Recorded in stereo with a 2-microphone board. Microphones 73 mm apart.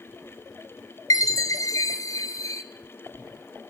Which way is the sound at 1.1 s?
50° left (ahead or behind).